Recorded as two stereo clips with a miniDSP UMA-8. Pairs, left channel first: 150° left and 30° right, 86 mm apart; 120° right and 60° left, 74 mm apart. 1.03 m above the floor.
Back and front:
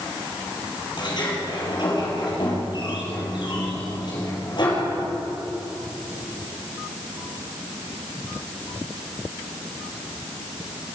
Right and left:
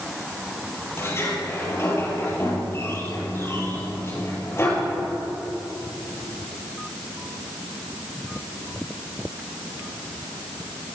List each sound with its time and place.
1.0 s a sliding door: 175° right, 6 m